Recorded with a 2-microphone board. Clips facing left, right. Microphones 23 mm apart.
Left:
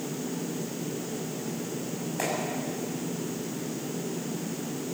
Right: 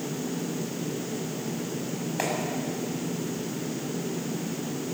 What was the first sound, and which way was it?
A clap, 30° right (ahead or behind).